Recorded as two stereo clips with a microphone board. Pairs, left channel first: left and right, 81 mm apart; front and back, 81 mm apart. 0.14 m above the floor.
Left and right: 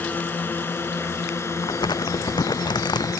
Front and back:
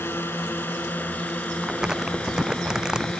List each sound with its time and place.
0.0 s a drone: 40° left; by 3.2 s 75° left
1.6 s crumpling: 100° left